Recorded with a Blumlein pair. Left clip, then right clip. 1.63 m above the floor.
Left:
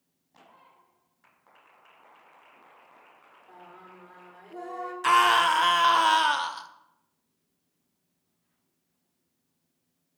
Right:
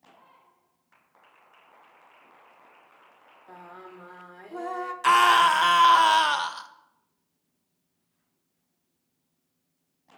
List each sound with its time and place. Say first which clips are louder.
3.5 s singing: right 4 dB; 65° right, 0.8 m
5.0 s a scream: right 2 dB; 5° right, 0.7 m